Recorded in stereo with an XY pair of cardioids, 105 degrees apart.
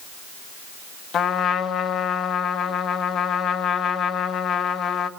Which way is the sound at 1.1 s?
60° left.